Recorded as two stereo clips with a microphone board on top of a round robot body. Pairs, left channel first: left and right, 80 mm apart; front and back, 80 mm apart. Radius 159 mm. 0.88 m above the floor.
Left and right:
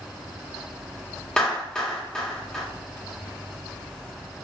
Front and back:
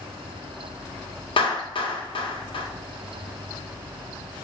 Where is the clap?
10° left, 2 m.